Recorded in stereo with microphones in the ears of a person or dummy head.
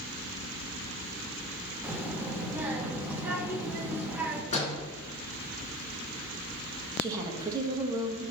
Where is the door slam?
35° left (ahead or behind), 3 m.